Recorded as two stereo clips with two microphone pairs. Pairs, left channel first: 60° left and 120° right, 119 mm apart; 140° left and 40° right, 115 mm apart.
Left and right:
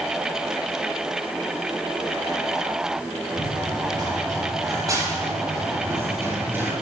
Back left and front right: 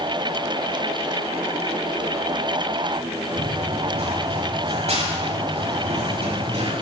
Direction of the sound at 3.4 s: 65° right.